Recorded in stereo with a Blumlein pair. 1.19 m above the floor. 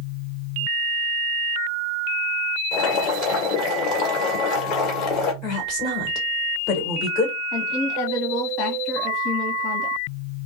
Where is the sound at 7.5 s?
35° left, 1.5 m.